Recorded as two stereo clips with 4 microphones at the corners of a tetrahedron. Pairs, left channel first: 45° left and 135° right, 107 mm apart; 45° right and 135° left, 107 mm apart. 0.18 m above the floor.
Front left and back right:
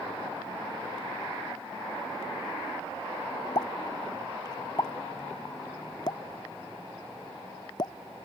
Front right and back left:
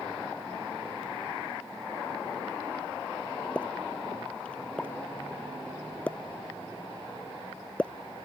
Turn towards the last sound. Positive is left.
turn(degrees=25)